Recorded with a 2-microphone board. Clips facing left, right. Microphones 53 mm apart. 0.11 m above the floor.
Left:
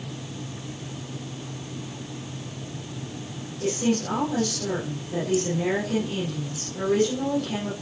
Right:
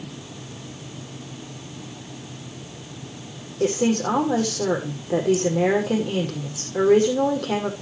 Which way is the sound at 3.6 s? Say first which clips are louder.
Right 4 dB; 60° right (ahead or behind).